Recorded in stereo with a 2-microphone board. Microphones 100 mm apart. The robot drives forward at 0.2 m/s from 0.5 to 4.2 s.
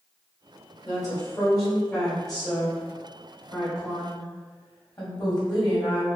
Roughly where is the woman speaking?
Left.